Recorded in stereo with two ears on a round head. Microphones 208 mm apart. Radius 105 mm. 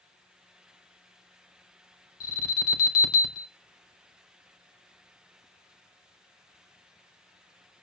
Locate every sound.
2.2 s an alarm: 70° left (ahead or behind), 3.5 m